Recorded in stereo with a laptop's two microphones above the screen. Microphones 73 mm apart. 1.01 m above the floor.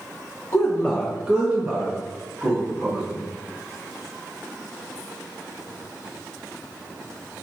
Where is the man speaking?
40° left (ahead or behind), 0.6 m; by 3.2 s 55° right (ahead or behind), 1.6 m.